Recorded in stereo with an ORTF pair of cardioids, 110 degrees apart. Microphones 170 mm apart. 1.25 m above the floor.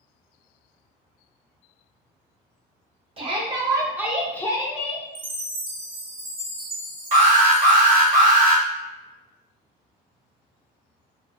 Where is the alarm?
50° right, 0.8 m.